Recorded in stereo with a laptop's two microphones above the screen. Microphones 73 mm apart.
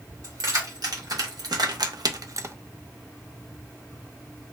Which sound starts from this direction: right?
Keys jangling, at 0.2 s.